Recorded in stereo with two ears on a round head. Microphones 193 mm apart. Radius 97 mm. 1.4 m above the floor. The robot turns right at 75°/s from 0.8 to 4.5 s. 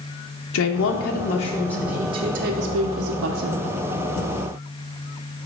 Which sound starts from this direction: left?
A woman speaking, at 0.5 s.